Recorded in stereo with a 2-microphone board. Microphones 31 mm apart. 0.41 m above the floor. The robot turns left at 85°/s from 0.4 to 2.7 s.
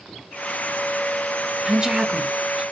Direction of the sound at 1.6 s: 20° right (ahead or behind).